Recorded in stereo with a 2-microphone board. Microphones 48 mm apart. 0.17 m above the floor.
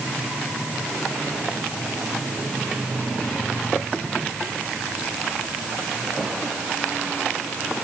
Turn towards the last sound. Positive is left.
No sound to turn to.